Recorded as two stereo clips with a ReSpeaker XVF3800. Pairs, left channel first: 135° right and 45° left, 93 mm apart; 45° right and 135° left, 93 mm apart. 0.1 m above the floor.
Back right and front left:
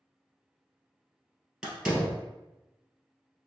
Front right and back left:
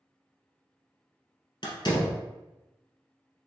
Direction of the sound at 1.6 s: 40° right.